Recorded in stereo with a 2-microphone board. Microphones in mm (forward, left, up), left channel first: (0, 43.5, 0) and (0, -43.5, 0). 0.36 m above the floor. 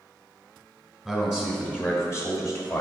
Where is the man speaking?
5° left (ahead or behind), 1.4 m; by 2.8 s 50° left (ahead or behind), 1.8 m.